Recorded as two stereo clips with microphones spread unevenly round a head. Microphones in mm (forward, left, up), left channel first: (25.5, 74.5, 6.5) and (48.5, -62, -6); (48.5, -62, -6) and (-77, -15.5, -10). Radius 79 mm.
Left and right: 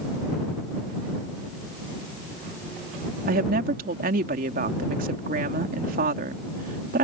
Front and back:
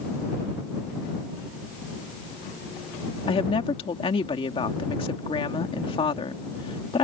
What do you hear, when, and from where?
3.3 s a woman speaking: 65° right